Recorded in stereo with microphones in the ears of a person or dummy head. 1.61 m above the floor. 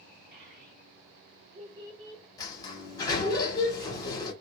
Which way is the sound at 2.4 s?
25° left (ahead or behind).